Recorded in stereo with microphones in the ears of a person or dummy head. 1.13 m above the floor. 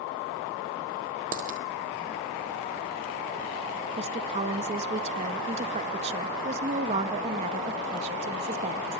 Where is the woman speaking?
30° right (ahead or behind), 1.9 m.